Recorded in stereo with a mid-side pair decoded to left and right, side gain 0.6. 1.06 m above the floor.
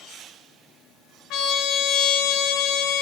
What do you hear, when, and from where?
1.3 s a trumpet: 65° left, 0.5 m